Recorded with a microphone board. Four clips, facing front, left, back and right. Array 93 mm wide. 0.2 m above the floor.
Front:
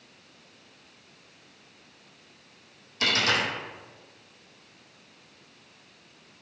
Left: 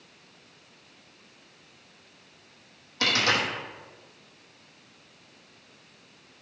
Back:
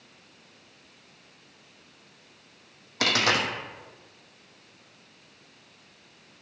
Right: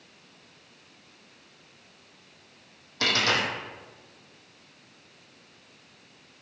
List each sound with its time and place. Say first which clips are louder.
3.0 s a dropped coin: even, back 1 dB; straight behind, 1.0 m